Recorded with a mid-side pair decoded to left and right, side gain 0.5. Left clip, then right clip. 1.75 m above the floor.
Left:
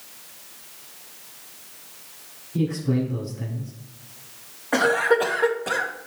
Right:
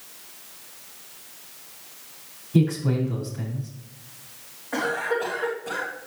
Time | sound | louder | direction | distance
2.5 | a man speaking | right 1 dB | 70° right | 5 m
4.7 | a cough | left 6 dB | 50° left | 2.5 m